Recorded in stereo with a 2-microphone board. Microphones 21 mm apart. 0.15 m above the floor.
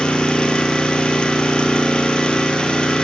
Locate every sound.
0.0 s an engine running: 55° left (ahead or behind), 1.0 m